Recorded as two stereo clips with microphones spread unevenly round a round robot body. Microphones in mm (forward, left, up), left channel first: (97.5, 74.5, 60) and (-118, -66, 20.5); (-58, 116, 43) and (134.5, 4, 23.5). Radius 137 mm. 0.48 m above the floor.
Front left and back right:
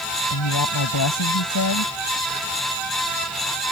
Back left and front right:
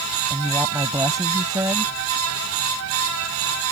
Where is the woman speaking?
45° left.